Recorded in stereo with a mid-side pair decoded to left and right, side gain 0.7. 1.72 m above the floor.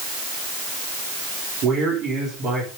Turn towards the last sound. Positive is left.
turn(degrees=-55)